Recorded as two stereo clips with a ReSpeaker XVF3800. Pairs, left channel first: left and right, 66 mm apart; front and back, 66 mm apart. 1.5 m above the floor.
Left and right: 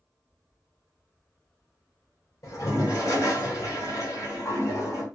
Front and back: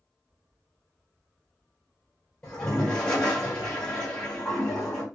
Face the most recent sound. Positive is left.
turn(degrees=65)